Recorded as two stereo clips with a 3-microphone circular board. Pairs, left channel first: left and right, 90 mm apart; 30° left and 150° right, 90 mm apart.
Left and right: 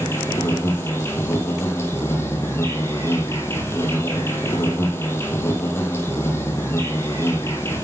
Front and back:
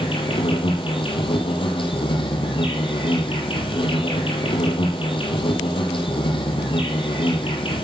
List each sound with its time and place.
0.0 s an insect: 30° left, 2 m